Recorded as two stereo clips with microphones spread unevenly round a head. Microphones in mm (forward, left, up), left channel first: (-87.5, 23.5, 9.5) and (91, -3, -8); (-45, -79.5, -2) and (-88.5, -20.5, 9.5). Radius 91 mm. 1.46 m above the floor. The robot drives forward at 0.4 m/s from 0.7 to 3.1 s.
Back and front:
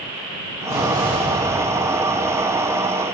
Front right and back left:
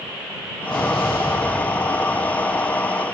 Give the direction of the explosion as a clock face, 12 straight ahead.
12 o'clock.